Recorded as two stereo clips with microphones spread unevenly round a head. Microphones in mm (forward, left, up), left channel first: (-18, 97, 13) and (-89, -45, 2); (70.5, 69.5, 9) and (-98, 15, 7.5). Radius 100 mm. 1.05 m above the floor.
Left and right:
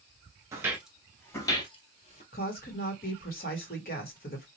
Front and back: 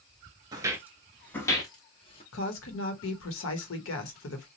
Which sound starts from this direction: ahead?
A woman speaking, at 2.3 s.